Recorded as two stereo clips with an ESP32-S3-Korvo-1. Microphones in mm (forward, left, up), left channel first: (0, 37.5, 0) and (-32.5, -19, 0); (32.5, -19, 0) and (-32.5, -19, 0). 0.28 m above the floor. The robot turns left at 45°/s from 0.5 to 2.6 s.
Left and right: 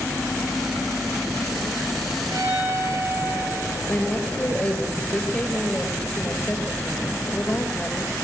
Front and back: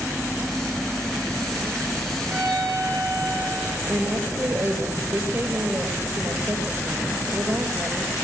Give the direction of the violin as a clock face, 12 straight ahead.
4 o'clock.